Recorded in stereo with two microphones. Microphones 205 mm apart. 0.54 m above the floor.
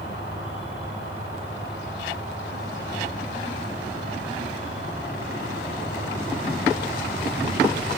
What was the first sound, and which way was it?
An insect, 80° left.